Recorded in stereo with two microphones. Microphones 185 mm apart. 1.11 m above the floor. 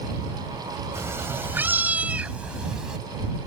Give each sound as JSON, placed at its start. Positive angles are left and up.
{"t": 0.9, "sound": "a cat meowing", "side_deg": -15}